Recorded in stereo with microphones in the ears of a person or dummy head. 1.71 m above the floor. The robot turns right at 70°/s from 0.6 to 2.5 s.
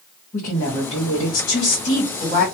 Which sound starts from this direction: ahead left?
A woman speaking, at 0.3 s.